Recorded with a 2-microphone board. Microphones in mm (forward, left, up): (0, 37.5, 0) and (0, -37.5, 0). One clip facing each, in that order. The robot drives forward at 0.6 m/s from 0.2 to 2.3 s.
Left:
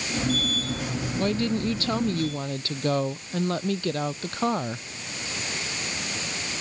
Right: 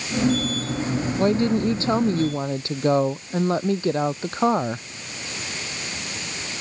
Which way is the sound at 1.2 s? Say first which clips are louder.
Right 5 dB; 30° right (ahead or behind).